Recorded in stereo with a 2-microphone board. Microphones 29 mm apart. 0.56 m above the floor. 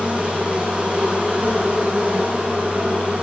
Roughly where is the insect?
Right.